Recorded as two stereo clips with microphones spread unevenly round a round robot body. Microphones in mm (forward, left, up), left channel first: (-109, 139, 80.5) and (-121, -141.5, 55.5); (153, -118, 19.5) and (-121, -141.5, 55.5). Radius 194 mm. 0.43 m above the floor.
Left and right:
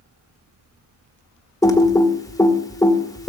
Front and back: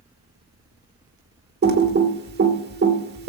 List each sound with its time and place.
1.6 s typing on a keyboard: 165° left, 1.5 m